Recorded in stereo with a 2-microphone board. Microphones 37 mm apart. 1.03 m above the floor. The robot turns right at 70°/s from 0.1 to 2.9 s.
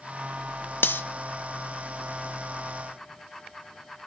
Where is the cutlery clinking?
70° left (ahead or behind), 0.6 m; by 1.0 s 65° left (ahead or behind), 0.6 m.